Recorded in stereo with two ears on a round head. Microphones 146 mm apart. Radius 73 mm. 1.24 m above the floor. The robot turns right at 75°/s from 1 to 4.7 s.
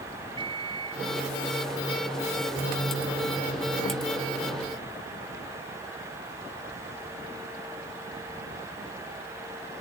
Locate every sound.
0.4 s a microwave: 30° right (ahead or behind)